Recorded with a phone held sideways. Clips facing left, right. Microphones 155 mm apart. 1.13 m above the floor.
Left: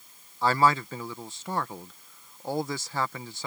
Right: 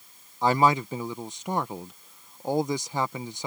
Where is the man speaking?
20° right (ahead or behind).